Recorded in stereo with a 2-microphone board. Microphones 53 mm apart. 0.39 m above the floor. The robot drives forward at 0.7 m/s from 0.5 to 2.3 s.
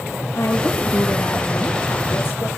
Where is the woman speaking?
80° left, 6 m; by 2.5 s 70° left (ahead or behind), 6 m.